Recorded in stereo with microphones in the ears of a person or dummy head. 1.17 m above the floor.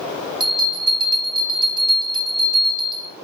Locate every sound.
0.4 s a bell: 30° right (ahead or behind), 0.7 m